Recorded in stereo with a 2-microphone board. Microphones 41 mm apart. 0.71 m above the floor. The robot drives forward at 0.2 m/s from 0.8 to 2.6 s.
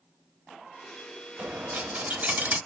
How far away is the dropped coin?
About 0.6 m.